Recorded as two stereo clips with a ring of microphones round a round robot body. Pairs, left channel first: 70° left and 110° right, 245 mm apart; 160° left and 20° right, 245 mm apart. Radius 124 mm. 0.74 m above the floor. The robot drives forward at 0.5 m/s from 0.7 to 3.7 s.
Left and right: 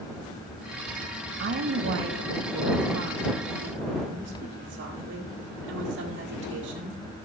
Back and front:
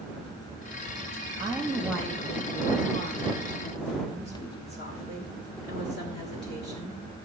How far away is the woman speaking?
About 0.7 m.